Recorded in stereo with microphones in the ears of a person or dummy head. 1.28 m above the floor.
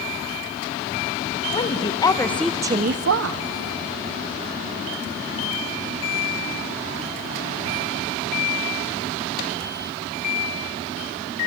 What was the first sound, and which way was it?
A woman speaking, 30° left (ahead or behind).